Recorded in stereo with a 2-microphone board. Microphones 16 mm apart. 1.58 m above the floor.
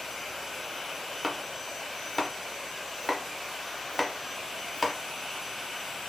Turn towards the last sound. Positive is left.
turn(degrees=10)  # may be behind; listen again after turning